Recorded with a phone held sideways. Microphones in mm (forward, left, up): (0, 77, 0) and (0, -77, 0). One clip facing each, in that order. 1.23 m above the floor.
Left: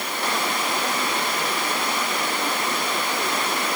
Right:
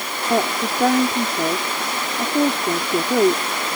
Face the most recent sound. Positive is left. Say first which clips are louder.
# right 8 dB
turn(degrees=-85)